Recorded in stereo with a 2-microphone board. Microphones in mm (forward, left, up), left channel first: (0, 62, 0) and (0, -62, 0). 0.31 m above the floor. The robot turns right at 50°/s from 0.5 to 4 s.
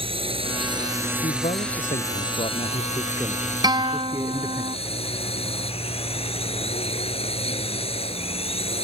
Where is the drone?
50° right; by 8.8 s 125° left.